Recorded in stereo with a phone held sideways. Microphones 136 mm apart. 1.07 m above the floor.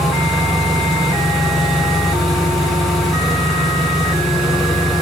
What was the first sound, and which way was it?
An engine running, centre (ahead or behind).